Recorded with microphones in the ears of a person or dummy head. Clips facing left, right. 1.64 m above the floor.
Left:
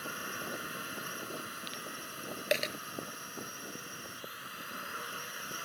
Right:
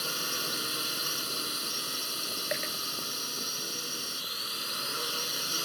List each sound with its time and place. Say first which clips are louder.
0.0 s a drone: right 4 dB; 50° right (ahead or behind)
2.5 s a dropped coin: left 4 dB; 45° left (ahead or behind)